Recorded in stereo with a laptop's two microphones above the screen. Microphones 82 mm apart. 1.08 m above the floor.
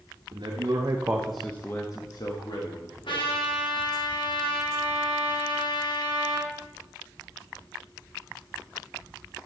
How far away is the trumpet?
About 1.8 m.